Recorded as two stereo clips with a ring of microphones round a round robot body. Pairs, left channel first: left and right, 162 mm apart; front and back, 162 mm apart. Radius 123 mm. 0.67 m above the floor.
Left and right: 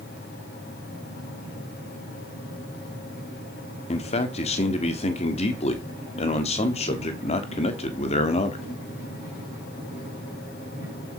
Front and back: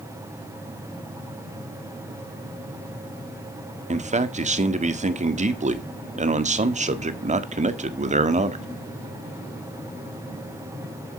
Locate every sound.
3.9 s a man speaking: 140° left, 1.5 m